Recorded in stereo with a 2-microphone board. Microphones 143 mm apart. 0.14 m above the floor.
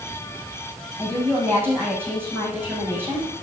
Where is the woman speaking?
15° right (ahead or behind), 7 m.